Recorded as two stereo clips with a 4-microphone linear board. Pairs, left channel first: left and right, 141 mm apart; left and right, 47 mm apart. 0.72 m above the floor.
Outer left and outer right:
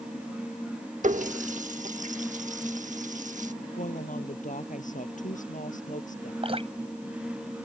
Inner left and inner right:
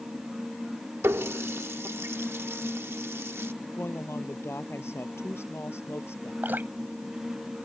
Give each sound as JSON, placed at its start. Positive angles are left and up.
{"t": 1.0, "sound": "a running tap", "side_deg": -65}
{"t": 3.7, "sound": "a woman speaking", "side_deg": 65}
{"t": 6.4, "sound": "dripping", "side_deg": -45}